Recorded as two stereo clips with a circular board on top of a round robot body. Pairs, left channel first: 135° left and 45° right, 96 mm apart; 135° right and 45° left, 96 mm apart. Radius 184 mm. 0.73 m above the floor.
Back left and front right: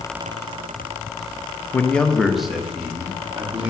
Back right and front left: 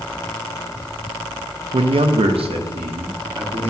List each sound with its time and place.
1.7 s a man speaking: 65° left, 0.7 m; by 3.7 s 30° left, 2 m